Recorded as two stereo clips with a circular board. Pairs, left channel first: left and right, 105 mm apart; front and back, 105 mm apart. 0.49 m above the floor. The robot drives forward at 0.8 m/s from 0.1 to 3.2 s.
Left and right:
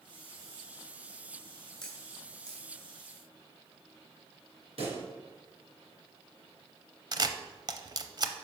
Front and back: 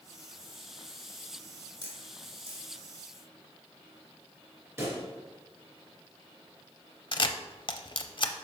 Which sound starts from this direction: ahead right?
A camera shutter, at 7.1 s.